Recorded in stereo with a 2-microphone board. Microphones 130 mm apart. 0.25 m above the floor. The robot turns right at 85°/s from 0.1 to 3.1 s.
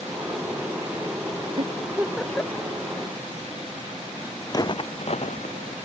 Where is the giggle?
55° right (ahead or behind); by 2.7 s 40° left (ahead or behind).